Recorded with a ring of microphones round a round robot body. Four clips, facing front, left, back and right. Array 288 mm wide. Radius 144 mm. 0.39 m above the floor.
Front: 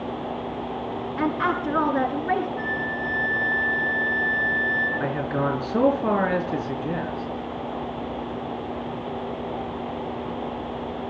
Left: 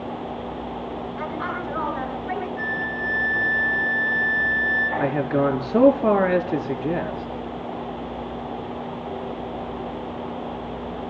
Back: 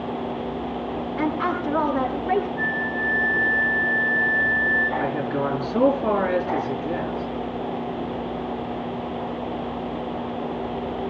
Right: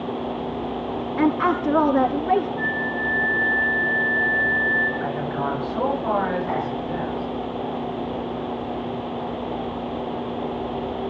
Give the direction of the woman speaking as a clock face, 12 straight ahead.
3 o'clock.